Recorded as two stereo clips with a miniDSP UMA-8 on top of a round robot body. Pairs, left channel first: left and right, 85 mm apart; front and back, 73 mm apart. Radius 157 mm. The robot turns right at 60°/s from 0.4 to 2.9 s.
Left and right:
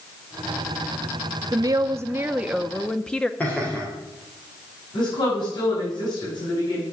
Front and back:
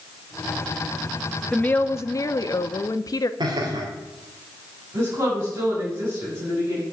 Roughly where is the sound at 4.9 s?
Behind left.